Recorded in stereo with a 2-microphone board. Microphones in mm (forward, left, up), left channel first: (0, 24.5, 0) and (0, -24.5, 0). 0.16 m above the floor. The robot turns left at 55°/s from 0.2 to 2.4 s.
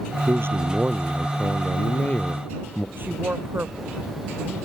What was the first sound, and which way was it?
A man speaking, 115° right.